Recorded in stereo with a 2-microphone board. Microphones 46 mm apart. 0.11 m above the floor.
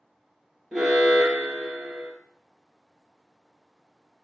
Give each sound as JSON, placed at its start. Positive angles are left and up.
{"t": 0.7, "sound": "an alarm", "side_deg": -5, "distance_m": 2.5}